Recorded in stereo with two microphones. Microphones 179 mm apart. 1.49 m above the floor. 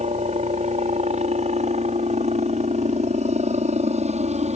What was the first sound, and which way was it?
A helicopter, 40° right (ahead or behind).